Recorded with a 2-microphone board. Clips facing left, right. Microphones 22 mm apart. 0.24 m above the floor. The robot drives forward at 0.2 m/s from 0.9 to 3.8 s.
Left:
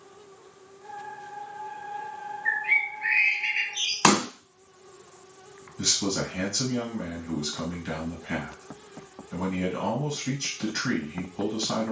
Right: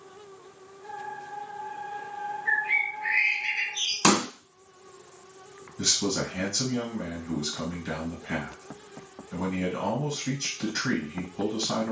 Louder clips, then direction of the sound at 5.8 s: Even; 40° left (ahead or behind).